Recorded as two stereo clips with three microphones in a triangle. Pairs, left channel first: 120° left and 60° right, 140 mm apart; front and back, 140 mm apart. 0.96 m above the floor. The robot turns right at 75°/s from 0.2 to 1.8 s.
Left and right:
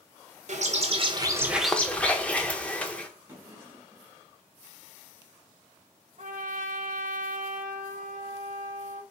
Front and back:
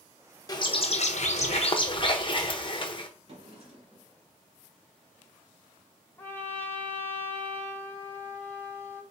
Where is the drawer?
135° right, 1.9 m.